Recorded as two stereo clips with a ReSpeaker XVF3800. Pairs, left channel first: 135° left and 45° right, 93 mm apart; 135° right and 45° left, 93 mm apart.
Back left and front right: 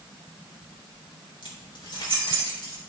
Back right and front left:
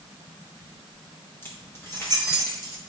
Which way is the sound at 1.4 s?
160° left.